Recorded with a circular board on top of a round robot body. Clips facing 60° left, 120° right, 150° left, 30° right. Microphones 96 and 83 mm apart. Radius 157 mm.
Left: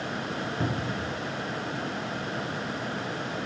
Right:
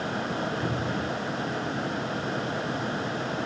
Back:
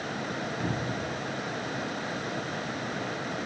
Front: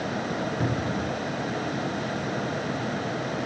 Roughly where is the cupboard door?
Ahead.